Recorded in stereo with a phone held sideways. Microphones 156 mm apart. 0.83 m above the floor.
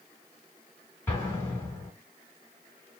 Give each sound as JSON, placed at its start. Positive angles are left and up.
{"t": 1.1, "sound": "an explosion", "side_deg": 15, "distance_m": 2.5}